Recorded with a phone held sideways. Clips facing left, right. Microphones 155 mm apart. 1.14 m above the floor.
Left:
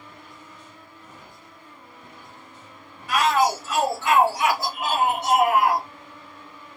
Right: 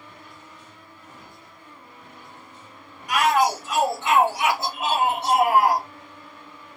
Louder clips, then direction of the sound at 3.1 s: Even; 15° right (ahead or behind).